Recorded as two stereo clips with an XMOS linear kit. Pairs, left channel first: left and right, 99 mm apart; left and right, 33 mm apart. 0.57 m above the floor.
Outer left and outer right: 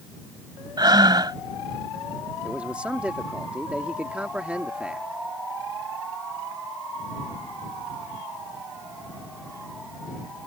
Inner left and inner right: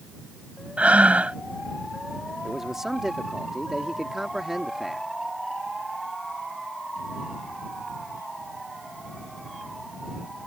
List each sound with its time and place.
0.8 s breathing: 45° right (ahead or behind)
2.4 s a man speaking: 10° right (ahead or behind)